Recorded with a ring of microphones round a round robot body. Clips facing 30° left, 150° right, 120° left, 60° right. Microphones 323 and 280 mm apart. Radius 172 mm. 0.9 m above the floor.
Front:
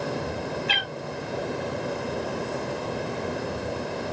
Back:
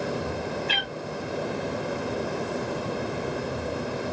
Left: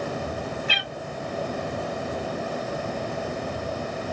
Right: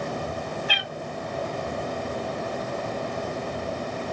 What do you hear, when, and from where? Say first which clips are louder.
0.7 s a cat meowing: even, even; 60° left, 1.0 m